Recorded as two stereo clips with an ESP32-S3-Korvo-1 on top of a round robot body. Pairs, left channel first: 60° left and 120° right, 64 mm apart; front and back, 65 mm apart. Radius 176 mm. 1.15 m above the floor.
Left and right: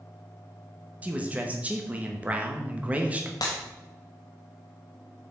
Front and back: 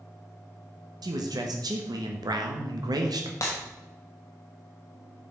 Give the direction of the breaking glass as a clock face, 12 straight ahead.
10 o'clock.